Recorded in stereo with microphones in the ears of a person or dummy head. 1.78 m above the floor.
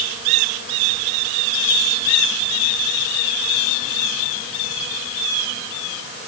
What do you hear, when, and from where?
Only background noise.